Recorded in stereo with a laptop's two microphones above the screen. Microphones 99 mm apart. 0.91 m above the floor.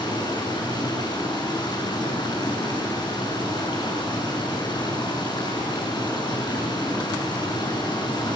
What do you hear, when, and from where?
0.0 s running water: 45° left (ahead or behind), 6 m